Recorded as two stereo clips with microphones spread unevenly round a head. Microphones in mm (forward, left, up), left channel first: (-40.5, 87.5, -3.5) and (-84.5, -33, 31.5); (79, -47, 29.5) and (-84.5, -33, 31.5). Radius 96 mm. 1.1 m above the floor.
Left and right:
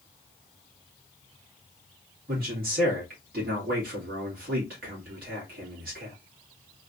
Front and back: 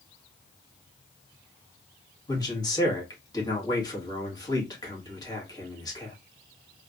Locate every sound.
2.3 s a man speaking: 70° right, 2 m